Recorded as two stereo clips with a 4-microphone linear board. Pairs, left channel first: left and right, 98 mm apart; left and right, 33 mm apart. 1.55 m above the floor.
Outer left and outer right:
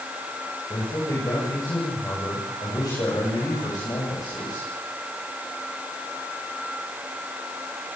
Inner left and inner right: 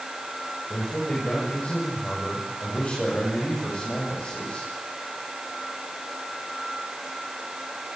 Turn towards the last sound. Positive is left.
turn(degrees=40)  # may be behind; listen again after turning